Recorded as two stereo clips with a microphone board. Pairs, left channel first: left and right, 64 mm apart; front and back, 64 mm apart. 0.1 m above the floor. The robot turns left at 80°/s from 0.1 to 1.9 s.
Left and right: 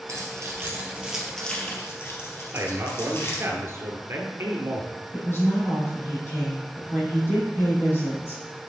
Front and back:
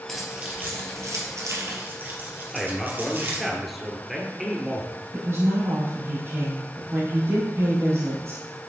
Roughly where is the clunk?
I don't hear a clunk.